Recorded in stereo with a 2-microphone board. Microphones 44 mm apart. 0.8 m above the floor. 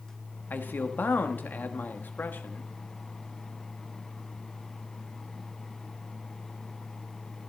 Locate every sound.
0.5 s a man speaking: 50° left (ahead or behind), 1.1 m